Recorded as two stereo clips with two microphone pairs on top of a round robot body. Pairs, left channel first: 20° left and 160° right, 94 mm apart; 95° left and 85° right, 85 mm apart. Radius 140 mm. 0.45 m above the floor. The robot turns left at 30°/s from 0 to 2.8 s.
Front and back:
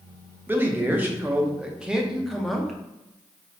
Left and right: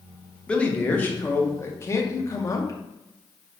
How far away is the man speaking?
About 0.8 m.